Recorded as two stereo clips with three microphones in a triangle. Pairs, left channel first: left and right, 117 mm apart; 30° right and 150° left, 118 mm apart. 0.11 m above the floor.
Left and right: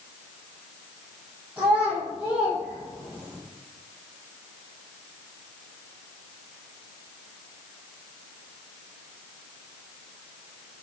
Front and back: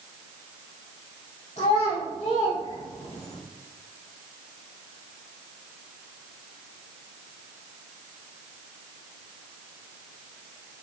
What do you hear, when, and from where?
1.6 s a child speaking: 10° right, 3 m